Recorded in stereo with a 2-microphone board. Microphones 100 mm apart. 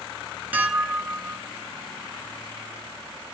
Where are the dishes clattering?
20° right (ahead or behind), 0.8 m.